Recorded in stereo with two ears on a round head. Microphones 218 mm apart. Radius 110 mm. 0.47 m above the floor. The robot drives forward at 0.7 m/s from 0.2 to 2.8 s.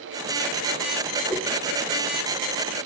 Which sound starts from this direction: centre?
A whoosh, at 1.3 s.